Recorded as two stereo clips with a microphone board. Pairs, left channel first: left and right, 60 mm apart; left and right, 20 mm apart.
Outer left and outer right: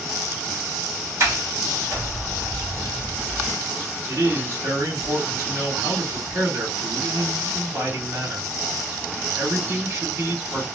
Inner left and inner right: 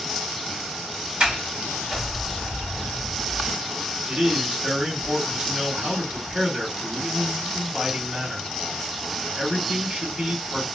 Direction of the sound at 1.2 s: 45° right (ahead or behind).